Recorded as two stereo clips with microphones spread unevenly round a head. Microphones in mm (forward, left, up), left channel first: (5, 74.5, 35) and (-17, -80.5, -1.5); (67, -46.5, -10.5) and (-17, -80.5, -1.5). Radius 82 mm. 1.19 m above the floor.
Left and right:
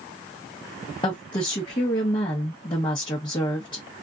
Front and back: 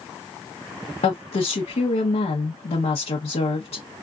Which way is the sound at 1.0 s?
15° left.